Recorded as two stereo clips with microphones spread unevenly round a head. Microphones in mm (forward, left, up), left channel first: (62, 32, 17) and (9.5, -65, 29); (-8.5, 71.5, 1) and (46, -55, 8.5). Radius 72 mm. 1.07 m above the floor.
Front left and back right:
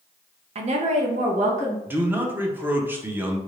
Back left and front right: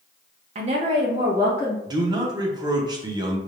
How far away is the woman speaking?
About 0.8 m.